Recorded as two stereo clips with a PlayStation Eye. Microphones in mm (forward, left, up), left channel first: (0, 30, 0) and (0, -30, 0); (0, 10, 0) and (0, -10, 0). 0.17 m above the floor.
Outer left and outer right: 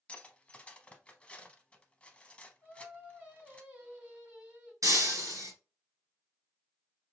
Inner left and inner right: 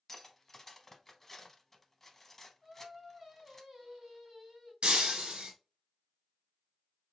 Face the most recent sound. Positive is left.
turn(degrees=-65)  # may be behind; listen again after turning